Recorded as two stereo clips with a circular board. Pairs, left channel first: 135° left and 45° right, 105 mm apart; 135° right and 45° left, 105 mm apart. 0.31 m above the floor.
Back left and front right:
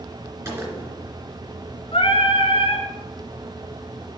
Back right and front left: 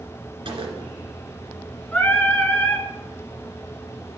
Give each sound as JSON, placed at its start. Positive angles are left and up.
{"t": 0.5, "sound": "a gunshot", "azimuth_deg": 10, "distance_m": 2.5}
{"t": 1.9, "sound": "singing", "azimuth_deg": 155, "distance_m": 1.6}